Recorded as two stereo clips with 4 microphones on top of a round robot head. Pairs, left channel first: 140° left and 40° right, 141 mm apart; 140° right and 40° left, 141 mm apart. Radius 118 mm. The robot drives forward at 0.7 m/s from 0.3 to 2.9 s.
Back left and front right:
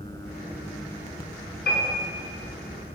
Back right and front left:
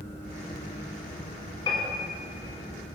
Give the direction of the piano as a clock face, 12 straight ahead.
7 o'clock.